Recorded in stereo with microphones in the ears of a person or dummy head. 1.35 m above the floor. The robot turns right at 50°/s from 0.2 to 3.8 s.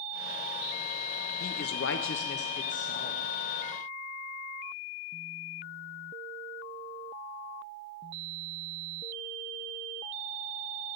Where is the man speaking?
65° left, 0.6 m; by 3.2 s 155° left, 0.6 m.